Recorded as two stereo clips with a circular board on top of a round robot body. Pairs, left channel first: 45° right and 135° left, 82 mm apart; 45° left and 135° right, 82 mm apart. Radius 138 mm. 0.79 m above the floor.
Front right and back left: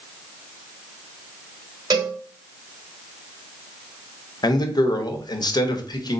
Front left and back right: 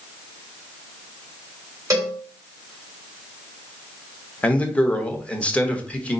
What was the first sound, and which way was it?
A cowbell, 175° left.